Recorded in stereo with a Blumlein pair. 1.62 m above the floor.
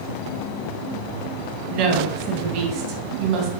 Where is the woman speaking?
40° right, 2 m.